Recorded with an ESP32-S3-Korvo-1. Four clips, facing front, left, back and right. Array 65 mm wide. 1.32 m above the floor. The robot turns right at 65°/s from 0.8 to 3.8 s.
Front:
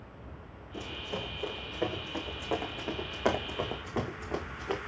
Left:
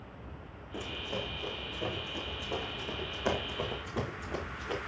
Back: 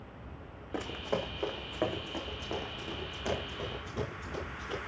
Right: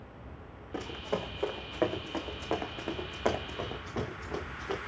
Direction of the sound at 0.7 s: 160° right.